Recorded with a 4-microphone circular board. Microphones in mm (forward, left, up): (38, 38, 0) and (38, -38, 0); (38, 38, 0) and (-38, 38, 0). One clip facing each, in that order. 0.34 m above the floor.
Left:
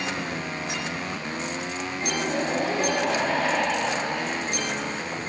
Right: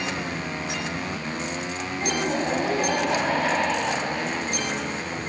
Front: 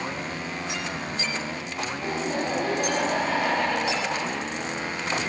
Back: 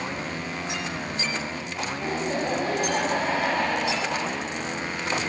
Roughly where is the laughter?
Behind right.